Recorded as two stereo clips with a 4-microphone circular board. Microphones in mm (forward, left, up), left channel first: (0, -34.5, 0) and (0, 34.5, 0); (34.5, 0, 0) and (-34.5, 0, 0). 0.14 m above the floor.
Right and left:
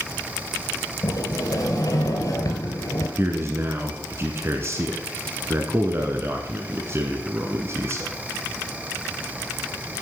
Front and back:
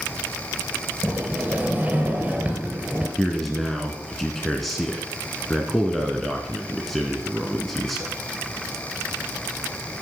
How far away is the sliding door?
About 2 m.